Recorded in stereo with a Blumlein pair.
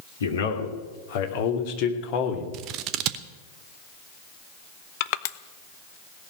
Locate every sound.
0.2 s a man speaking: 65° left, 3 m; by 2.4 s 40° left, 2.5 m
2.5 s scissors: 40° right, 0.8 m
5.0 s crushing: 50° left, 0.6 m